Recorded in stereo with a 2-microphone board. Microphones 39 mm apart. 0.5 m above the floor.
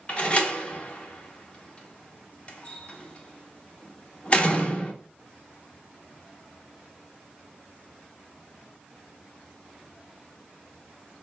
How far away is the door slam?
About 0.6 m.